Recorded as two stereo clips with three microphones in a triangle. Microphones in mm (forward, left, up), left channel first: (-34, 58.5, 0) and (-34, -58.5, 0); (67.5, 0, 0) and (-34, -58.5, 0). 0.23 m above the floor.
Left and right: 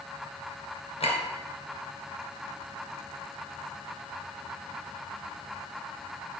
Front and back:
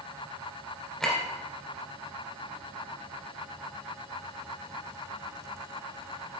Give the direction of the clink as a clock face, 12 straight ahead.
8 o'clock.